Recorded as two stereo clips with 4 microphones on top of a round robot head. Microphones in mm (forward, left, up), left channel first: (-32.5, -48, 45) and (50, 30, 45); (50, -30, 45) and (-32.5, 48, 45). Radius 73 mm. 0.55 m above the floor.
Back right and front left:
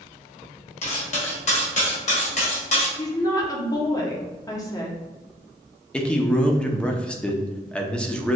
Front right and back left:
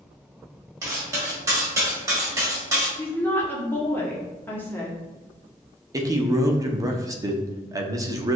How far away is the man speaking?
About 0.7 m.